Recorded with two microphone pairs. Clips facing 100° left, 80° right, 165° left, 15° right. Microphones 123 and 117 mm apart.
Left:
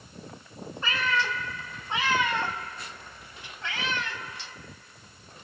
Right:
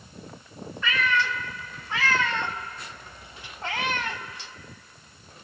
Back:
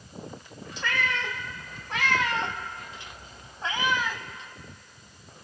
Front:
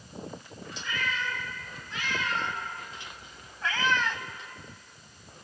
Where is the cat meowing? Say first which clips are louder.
Right 2 dB, back 4 dB; 155° left, 2 m; by 4.2 s 105° right, 1.0 m.